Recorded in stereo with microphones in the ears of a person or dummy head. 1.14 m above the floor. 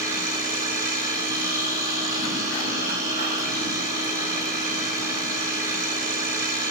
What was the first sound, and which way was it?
A machine running, 50° right (ahead or behind).